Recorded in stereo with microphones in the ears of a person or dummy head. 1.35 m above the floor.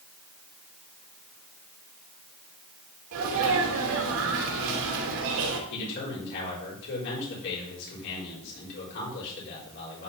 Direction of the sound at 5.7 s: 60° left (ahead or behind).